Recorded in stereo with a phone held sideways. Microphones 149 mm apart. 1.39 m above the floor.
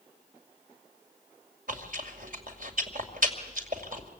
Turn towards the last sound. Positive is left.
turn(degrees=-60)  # may be behind; listen again after turning